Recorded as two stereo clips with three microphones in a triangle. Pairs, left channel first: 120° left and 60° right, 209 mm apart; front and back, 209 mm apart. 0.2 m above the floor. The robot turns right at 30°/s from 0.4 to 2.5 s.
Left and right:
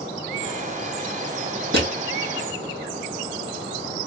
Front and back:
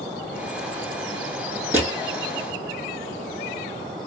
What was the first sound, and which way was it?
Crushing, 100° right.